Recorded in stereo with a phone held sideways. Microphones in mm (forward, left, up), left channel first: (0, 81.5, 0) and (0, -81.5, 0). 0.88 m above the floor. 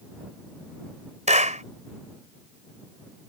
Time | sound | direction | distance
1.3 | a clap | 45° right (ahead or behind) | ?